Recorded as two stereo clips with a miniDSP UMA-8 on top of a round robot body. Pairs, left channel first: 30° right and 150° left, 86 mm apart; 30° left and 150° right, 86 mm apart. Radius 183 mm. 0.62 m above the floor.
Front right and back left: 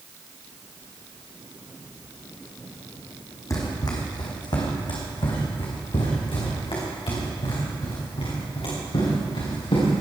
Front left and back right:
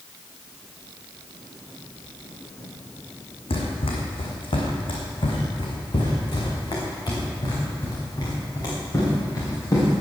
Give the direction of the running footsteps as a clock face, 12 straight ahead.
11 o'clock.